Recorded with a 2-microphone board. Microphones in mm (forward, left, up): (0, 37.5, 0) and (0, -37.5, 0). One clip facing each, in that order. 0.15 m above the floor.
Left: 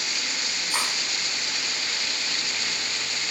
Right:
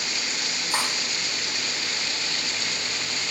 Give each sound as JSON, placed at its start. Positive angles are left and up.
{"t": 0.7, "sound": "cutlery clinking", "side_deg": -35, "distance_m": 3.5}